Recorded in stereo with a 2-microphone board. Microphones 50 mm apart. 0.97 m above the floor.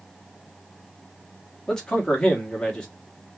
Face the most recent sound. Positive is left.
turn(degrees=15)  # may be behind; listen again after turning